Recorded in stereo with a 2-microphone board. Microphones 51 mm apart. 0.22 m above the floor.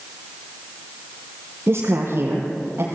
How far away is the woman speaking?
About 5.5 m.